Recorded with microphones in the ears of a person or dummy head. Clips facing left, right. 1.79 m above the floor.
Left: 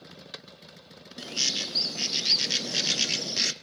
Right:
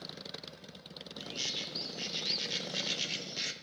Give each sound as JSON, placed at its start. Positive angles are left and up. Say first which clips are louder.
{"t": 1.2, "sound": "a bird", "louder": "left 7 dB", "side_deg": 70, "distance_m": 0.9}